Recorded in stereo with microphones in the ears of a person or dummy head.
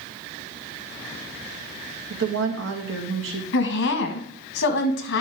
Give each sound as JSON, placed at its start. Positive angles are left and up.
{"t": 2.1, "sound": "a woman speaking", "side_deg": -75, "distance_m": 1.8}
{"t": 3.5, "sound": "a woman speaking", "side_deg": 70, "distance_m": 1.5}